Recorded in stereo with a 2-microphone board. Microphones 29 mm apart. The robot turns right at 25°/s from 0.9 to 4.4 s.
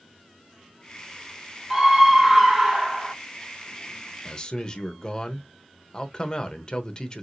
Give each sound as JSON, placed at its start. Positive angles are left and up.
{"t": 1.7, "sound": "a scream", "side_deg": -10, "distance_m": 1.5}
{"t": 4.2, "sound": "a man speaking", "side_deg": 25, "distance_m": 0.9}